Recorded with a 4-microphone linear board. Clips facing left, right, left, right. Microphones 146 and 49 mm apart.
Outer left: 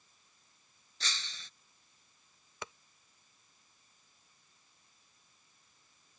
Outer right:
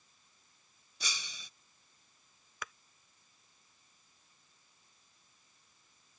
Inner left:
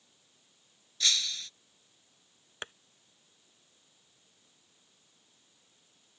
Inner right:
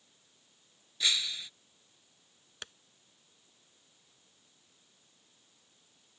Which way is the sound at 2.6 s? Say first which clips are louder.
Outer left 1 dB, inner left 5 dB; 30° left (ahead or behind).